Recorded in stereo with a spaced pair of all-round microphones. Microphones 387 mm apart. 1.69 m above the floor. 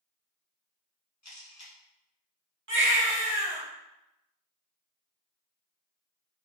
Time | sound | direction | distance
1.2 | a camera shutter | 45° left (ahead or behind) | 0.7 m
2.7 | a baby crying | 30° right (ahead or behind) | 0.9 m